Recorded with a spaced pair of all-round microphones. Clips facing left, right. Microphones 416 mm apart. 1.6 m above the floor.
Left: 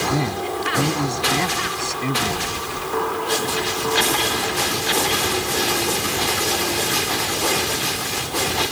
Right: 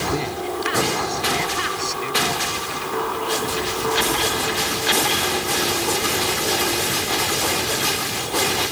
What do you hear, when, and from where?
0.1 s a man speaking: 65° left (ahead or behind)